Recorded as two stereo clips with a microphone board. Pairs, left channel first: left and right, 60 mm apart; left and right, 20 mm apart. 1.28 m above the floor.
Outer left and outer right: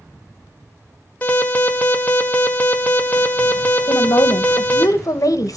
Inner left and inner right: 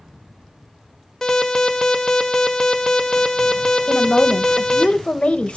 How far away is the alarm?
About 1.6 m.